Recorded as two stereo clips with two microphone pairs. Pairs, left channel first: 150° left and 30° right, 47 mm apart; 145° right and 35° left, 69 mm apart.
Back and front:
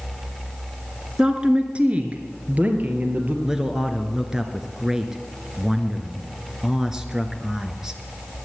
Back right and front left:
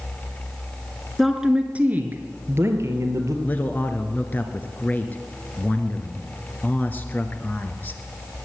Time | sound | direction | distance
1.2 | a woman speaking | 45° right | 1.3 m
3.4 | a man speaking | 100° right | 1.3 m